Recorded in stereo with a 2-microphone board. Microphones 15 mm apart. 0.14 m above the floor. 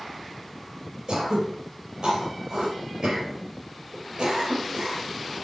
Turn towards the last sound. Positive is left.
turn(degrees=-60)  # may be behind; listen again after turning